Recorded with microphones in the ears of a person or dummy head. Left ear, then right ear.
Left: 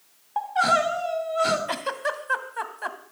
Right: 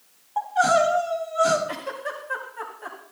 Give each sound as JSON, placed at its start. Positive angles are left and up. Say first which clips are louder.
{"t": 0.4, "sound": "crying", "louder": "right 2 dB", "side_deg": 25, "distance_m": 3.0}
{"t": 1.7, "sound": "a giggle", "louder": "left 4 dB", "side_deg": 65, "distance_m": 2.0}